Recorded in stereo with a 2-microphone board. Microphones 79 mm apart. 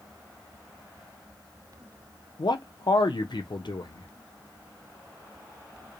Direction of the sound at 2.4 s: 75° left (ahead or behind).